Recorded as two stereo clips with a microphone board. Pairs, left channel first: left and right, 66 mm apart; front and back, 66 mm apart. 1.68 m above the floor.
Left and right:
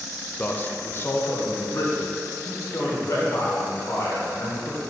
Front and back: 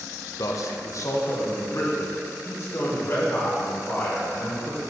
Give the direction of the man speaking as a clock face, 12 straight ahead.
11 o'clock.